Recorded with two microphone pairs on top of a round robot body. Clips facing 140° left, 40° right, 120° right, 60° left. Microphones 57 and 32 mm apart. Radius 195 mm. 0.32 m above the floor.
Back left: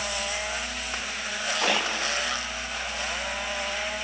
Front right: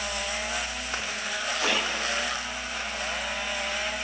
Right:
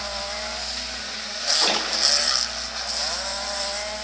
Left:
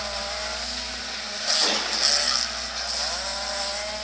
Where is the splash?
175° left, 3.5 m.